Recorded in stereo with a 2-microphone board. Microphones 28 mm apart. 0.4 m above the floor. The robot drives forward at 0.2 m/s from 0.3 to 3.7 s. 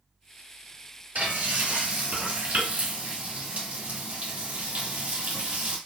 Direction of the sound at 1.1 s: 75° right (ahead or behind).